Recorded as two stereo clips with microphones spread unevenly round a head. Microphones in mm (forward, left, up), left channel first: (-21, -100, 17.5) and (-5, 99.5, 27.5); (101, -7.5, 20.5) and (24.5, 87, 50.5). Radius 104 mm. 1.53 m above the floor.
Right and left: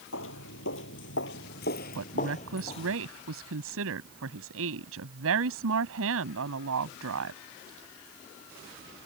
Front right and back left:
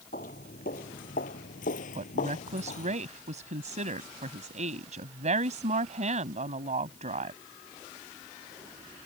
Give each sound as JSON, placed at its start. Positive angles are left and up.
{"t": 0.1, "sound": "footsteps", "azimuth_deg": -105}
{"t": 1.9, "sound": "a woman speaking", "azimuth_deg": 105}